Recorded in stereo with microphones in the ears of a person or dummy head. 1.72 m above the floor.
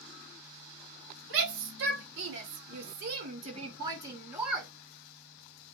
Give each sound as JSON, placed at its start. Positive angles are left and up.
{"t": 1.3, "sound": "a shout", "side_deg": -75, "distance_m": 1.4}